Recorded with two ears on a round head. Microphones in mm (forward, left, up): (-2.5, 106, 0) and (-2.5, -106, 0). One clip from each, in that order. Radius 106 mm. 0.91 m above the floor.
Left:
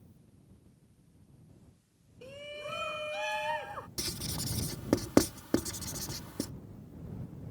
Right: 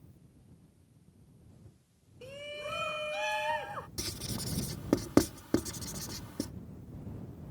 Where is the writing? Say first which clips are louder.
Left 5 dB; 10° left (ahead or behind).